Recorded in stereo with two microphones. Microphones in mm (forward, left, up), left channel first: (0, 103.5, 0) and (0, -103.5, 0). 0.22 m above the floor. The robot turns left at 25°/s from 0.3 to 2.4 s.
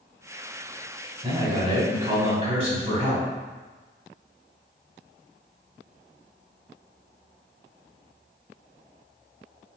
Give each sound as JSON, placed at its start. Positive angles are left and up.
{"t": 1.2, "sound": "a man speaking", "side_deg": -30, "distance_m": 1.1}